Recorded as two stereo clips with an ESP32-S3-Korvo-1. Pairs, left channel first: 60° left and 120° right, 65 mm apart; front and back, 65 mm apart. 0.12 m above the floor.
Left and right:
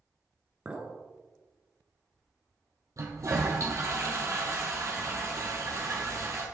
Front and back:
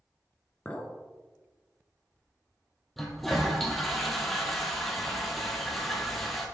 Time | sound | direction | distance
0.7 | a clink | 60° right | 0.9 m
3.0 | a toilet flushing | 90° right | 1.7 m